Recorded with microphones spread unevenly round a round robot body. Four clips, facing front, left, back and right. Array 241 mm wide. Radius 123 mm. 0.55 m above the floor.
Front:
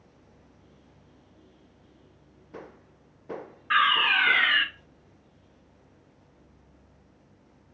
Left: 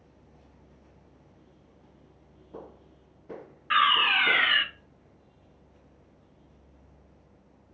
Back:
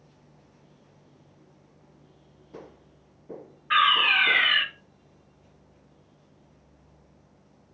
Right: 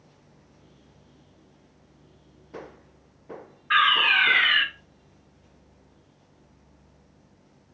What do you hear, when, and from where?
3.7 s a fire alarm: 70° left, 1.9 m